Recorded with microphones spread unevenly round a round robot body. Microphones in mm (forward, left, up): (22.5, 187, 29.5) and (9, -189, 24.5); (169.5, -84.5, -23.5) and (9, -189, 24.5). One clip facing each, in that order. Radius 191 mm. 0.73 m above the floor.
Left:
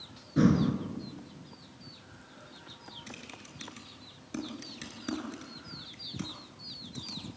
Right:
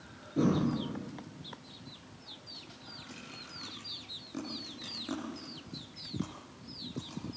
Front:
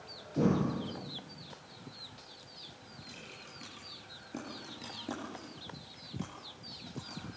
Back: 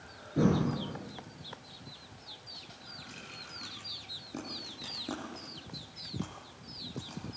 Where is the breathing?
135° left, 2.5 m.